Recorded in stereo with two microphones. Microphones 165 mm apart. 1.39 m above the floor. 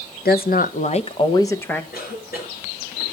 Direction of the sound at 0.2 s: 70° left (ahead or behind).